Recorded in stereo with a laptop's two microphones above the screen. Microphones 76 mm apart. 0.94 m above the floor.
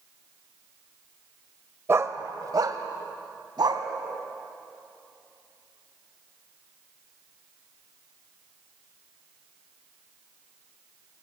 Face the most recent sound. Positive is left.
turn(degrees=-70)  # may be behind; listen again after turning